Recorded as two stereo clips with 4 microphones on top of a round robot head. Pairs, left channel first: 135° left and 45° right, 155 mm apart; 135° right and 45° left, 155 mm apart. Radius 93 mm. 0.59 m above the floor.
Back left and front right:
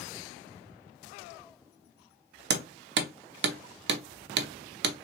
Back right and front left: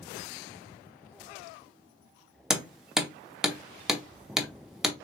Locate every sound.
2.5 s hammering: 45° right, 0.7 m